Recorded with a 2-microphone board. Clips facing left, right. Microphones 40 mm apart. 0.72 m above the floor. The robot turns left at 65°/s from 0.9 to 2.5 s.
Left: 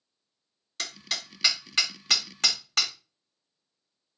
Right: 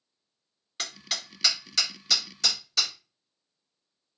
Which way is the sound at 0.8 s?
15° right (ahead or behind).